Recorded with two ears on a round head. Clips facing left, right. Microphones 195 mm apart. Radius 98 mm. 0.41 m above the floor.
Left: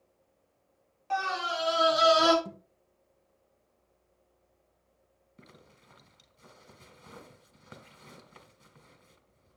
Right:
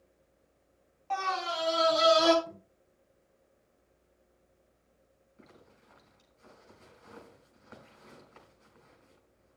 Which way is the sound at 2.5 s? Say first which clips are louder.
Left 2 dB; 80° left.